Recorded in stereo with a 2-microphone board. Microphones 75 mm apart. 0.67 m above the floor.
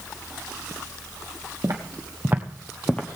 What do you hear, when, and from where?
1.6 s footsteps: 50° right (ahead or behind), 1.7 m; by 3.1 s 20° left (ahead or behind), 1.3 m